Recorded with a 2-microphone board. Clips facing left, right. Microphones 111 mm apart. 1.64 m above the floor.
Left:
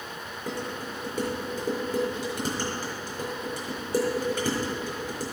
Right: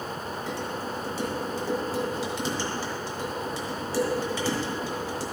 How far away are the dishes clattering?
About 4 m.